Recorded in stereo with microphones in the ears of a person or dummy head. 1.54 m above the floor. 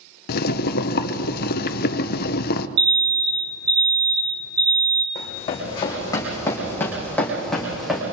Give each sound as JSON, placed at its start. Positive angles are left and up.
{"t": 0.3, "sound": "boiling", "side_deg": 55, "distance_m": 0.9}
{"t": 2.8, "sound": "an alarm", "side_deg": -60, "distance_m": 1.0}
{"t": 5.2, "sound": "running footsteps", "side_deg": 25, "distance_m": 5.0}